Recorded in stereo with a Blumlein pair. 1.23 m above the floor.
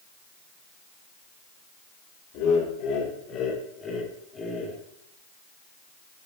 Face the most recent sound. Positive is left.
turn(degrees=10)